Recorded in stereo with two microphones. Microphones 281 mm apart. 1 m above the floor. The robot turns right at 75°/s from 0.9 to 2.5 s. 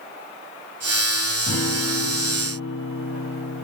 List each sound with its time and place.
1.5 s a guitar: 55° left, 3.5 m; by 3.6 s 135° left, 3.5 m